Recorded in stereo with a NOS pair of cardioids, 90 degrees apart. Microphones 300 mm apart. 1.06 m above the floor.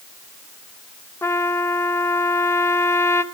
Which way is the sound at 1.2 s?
10° left.